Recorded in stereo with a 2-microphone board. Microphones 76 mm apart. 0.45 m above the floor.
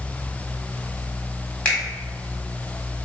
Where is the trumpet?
I don't hear a trumpet.